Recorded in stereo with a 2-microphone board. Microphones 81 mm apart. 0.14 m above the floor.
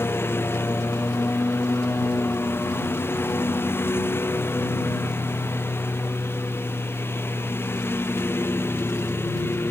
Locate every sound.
0.0 s a lawn mower: 30° left (ahead or behind)